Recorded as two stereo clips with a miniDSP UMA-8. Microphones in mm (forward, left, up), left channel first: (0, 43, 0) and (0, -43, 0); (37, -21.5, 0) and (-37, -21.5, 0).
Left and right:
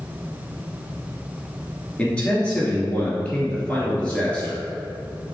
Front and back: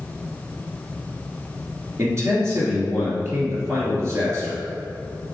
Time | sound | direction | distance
2.0 | a man speaking | 160° left | 1.6 m